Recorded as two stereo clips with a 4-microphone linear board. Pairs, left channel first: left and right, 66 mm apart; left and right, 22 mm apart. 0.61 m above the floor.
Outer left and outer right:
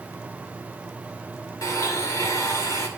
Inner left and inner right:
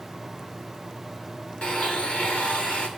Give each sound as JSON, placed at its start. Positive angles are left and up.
{"t": 1.6, "sound": "a blender", "side_deg": 60, "distance_m": 2.0}